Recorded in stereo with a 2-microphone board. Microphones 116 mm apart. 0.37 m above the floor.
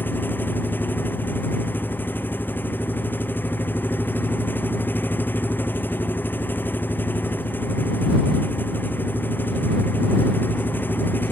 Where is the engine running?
15° left (ahead or behind).